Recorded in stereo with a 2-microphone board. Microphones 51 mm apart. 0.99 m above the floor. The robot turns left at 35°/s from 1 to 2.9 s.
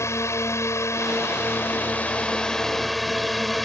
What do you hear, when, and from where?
0.0 s a drone: 70° left; by 3.6 s 5° left